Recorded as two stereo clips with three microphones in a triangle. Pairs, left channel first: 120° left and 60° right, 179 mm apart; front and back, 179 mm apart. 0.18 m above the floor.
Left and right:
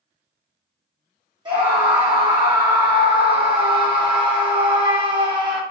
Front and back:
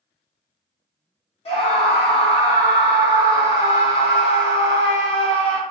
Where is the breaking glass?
No breaking glass in this recording.